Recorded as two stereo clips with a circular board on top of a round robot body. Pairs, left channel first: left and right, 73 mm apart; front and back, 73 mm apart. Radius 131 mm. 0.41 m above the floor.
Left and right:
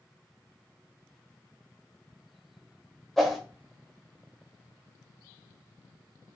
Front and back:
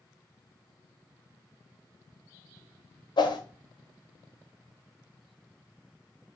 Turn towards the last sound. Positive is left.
turn(degrees=0)